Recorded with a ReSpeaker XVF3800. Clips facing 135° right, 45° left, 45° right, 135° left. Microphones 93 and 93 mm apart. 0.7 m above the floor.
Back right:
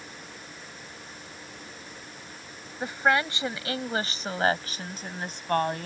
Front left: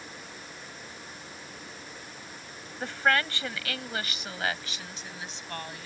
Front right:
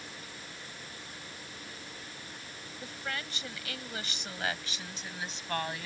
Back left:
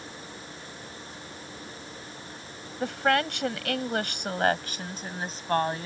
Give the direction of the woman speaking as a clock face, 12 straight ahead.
7 o'clock.